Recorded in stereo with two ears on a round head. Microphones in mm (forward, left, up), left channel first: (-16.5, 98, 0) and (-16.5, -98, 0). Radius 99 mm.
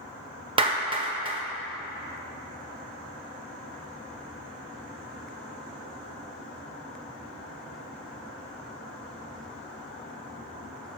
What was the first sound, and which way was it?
A clap, 25° right (ahead or behind).